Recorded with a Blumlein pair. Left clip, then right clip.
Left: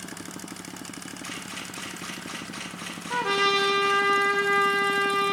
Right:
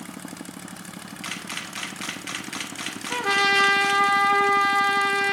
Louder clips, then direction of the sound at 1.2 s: Right 5 dB; 60° right.